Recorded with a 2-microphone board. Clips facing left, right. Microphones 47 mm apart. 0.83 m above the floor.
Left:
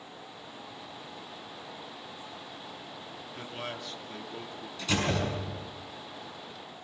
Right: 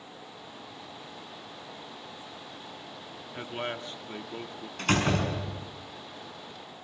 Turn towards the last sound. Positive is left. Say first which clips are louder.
# right 3 dB
turn(degrees=-50)  # may be behind; listen again after turning